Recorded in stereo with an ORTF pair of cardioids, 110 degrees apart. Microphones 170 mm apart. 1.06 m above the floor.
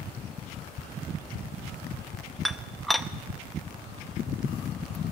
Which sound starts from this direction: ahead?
Dishes clattering, at 2.5 s.